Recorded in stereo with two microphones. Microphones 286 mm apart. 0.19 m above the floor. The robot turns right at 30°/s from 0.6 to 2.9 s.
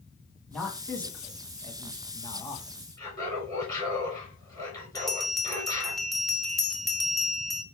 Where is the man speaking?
5° left (ahead or behind), 1.0 m; by 2.8 s 20° left (ahead or behind), 1.0 m.